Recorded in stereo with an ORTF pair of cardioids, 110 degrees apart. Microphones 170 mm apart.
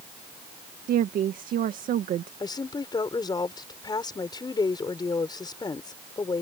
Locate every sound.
0.9 s a woman speaking: 60° right
2.4 s a woman speaking: 25° left